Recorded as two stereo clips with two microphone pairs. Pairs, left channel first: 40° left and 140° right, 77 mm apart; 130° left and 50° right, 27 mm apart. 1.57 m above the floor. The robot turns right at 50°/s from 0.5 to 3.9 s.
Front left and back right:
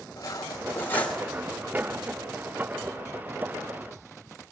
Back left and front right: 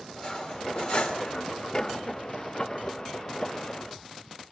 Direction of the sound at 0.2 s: 80° left.